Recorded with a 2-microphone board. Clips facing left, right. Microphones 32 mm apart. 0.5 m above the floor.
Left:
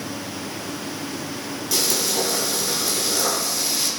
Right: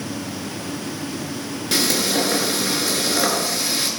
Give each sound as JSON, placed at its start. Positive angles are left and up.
{"t": 1.7, "sound": "frying", "side_deg": -45, "distance_m": 5.5}